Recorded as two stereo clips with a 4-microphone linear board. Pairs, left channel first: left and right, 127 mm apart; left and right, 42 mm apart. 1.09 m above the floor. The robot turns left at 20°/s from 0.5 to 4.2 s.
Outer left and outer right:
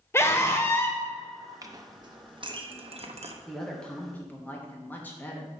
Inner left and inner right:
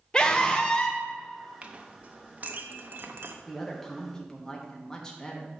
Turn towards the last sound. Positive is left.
turn(degrees=15)  # may be behind; listen again after turning